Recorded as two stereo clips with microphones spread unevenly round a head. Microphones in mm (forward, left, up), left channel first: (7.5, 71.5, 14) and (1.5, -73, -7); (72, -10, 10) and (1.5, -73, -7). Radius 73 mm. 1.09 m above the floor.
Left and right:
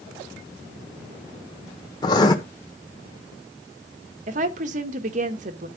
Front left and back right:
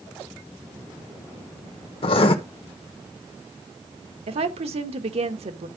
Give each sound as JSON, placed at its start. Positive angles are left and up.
{"t": 2.0, "sound": "writing", "azimuth_deg": 25, "distance_m": 1.1}
{"t": 4.3, "sound": "a woman speaking", "azimuth_deg": -130, "distance_m": 1.0}